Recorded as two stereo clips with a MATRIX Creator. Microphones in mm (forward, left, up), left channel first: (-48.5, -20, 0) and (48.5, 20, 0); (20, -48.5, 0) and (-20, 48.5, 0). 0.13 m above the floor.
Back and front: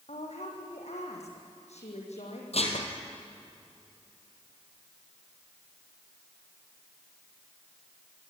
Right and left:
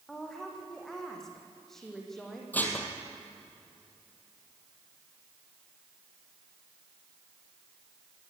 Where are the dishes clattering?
140° right, 3 m.